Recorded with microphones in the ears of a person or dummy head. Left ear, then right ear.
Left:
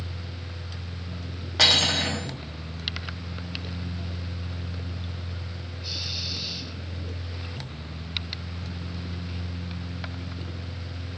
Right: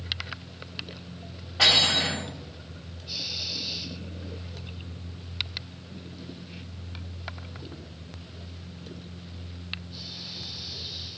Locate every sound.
1.6 s cutlery clinking: 70° left (ahead or behind), 0.7 m